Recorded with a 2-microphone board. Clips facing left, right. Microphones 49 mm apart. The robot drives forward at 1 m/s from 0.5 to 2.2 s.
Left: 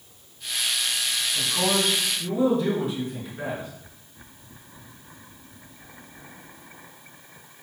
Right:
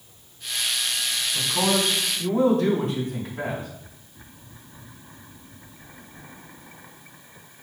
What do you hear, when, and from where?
1.4 s a man speaking: 55° right (ahead or behind), 4 m; by 3.7 s 65° right (ahead or behind), 3.5 m